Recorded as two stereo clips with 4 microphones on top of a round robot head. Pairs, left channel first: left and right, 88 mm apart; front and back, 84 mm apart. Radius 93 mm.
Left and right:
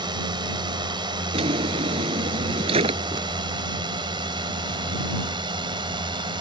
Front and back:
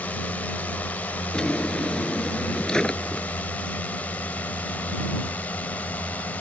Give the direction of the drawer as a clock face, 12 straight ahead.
3 o'clock.